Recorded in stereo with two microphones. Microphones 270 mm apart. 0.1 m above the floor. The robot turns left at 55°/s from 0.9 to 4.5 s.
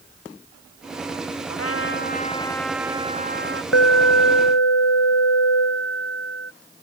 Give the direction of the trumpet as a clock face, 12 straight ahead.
10 o'clock.